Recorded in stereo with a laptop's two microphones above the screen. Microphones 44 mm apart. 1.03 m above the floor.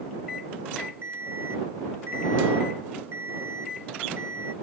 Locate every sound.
1.0 s an alarm clock: 65° right (ahead or behind)